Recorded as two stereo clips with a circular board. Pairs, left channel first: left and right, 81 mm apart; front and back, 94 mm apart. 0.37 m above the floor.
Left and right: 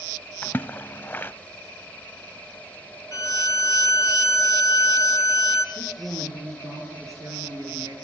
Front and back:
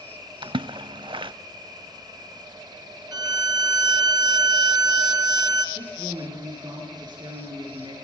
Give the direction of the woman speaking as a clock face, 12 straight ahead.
5 o'clock.